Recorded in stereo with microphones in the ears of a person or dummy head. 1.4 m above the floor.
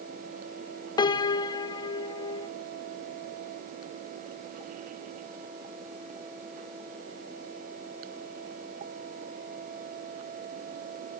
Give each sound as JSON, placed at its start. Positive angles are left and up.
{"t": 1.0, "sound": "a piano", "side_deg": 20, "distance_m": 0.5}